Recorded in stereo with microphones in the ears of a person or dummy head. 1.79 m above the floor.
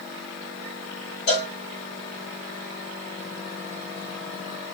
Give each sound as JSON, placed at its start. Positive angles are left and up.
{"t": 1.3, "sound": "a cowbell", "side_deg": 40, "distance_m": 1.6}